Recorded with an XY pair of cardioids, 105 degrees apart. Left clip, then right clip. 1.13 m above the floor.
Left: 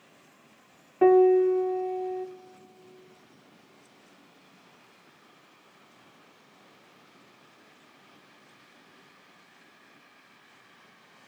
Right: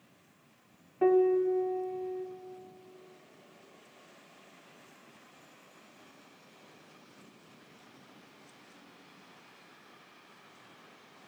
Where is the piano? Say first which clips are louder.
Left 6 dB; 50° left, 0.6 m.